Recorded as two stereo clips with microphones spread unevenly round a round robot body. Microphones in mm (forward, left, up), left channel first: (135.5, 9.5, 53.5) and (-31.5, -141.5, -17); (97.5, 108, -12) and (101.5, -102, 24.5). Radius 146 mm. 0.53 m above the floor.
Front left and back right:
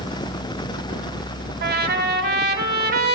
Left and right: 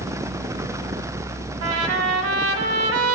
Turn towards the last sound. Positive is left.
turn(degrees=-90)